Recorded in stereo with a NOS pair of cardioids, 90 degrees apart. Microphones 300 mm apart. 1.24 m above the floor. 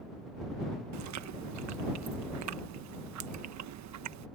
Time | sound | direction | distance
0.9 | chewing | 70° right | ?